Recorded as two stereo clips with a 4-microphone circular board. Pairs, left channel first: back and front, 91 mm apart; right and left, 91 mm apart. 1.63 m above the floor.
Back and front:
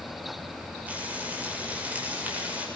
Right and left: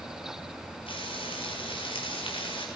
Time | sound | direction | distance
0.9 | frying | 75° right | 8 m